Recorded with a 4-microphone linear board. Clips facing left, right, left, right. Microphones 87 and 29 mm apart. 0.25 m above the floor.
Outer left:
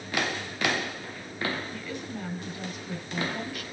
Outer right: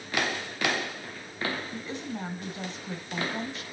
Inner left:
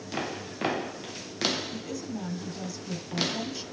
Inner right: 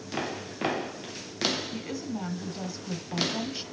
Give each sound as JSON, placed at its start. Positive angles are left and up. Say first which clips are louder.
{"t": 1.7, "sound": "a woman speaking", "louder": "outer right 1 dB, inner right 1 dB", "side_deg": -25, "distance_m": 1.2}